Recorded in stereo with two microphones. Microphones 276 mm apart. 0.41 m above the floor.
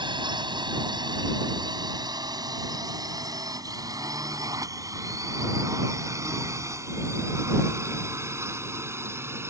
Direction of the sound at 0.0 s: 15° right (ahead or behind).